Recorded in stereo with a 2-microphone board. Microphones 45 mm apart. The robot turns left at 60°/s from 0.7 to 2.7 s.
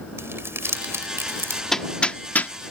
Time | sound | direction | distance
0.2 | crumpling | 65° right (ahead or behind) | ?
1.7 | hammering | 10° left (ahead or behind) | ?